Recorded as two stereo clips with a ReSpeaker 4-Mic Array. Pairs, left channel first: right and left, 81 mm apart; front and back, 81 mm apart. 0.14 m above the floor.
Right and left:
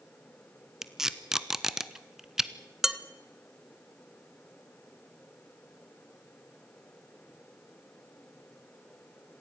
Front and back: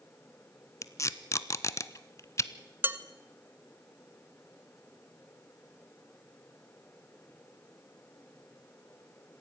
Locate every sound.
0.8 s tape being pulled: 10° left, 0.7 m
2.8 s dishes clattering: 170° left, 0.8 m